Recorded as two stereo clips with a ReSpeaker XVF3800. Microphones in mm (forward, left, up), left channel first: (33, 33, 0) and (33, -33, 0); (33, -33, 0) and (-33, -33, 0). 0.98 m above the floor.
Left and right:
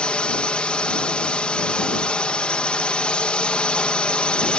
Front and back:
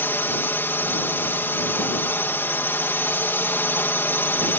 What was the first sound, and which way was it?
A drone, 25° left.